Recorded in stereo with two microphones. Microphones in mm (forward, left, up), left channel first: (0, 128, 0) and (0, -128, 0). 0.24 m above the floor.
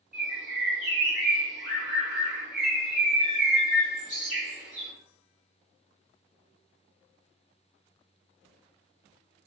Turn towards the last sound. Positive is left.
turn(degrees=30)  # may be behind; listen again after turning